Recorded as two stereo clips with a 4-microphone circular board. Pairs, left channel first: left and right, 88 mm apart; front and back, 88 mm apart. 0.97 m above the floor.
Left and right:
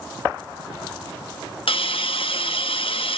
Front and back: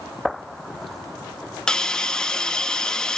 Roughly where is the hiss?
Left.